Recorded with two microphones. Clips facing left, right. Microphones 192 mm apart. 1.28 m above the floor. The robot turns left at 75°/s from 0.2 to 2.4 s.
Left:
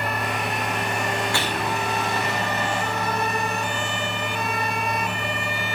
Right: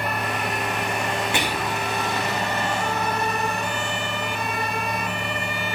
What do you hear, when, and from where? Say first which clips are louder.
1.3 s whispering: even; 160° right, 1.2 m; by 1.8 s 165° left, 1.2 m